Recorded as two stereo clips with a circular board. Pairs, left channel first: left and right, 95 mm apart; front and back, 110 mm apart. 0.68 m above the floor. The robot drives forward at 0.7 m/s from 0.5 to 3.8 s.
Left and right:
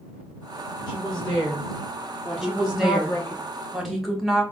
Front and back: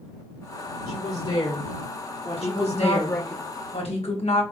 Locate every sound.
0.9 s a woman speaking: 10° left, 2.5 m; by 3.4 s 40° left, 1.3 m
2.4 s a woman speaking: straight ahead, 4 m